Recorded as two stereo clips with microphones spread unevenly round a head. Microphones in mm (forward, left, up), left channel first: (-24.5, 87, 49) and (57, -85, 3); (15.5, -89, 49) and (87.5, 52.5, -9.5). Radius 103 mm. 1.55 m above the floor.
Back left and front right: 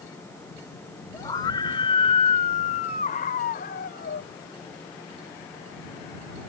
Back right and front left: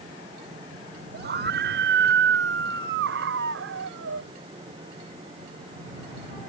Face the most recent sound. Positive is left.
turn(degrees=75)